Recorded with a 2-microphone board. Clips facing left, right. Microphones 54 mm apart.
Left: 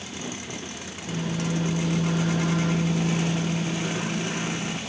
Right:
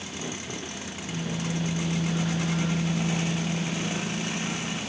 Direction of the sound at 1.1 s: 60° left (ahead or behind).